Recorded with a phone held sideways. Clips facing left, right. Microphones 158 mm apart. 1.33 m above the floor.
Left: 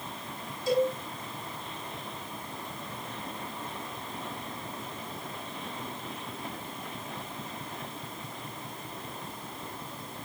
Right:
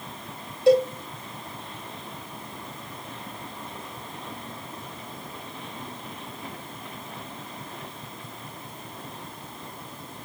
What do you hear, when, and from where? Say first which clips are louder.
0.7 s a cowbell: right 8 dB; 75° right (ahead or behind), 3 m